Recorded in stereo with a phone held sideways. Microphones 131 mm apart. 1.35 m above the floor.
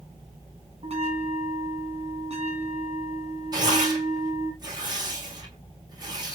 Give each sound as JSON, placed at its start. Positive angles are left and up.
{"t": 0.8, "sound": "a bell", "side_deg": -50, "distance_m": 1.8}
{"t": 3.5, "sound": "tearing paper", "side_deg": -30, "distance_m": 2.0}